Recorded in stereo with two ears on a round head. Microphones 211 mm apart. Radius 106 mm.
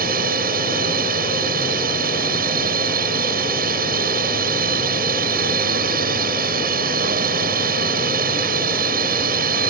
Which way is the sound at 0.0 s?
40° right (ahead or behind).